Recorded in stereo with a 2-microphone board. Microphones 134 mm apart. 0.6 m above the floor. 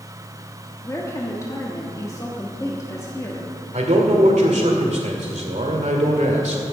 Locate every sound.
0.8 s a woman speaking: 25° left (ahead or behind), 1.3 m
3.7 s a man speaking: 65° right (ahead or behind), 2 m